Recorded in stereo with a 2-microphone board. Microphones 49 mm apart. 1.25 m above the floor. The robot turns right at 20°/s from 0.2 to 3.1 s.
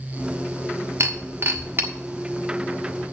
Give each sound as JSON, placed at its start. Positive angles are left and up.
{"t": 1.0, "sound": "breaking glass", "side_deg": -60, "distance_m": 1.4}